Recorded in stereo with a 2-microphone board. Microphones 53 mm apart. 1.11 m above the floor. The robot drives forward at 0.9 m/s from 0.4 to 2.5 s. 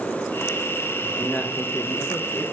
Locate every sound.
1.0 s a man speaking: 25° left (ahead or behind), 1.0 m; by 2.5 s 40° left (ahead or behind), 0.6 m